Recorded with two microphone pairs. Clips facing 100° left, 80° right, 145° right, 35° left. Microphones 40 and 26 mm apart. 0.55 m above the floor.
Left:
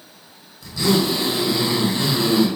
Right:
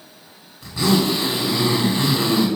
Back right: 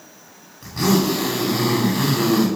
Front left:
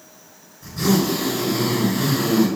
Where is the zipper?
140° right, 2.5 m.